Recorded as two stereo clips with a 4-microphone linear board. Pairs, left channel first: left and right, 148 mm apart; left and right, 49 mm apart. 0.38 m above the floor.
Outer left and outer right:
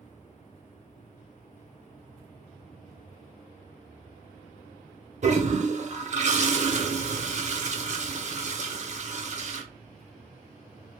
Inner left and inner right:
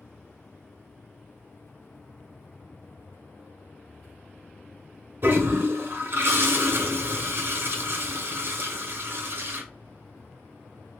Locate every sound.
5.2 s a toilet flushing: 50° right (ahead or behind), 0.7 m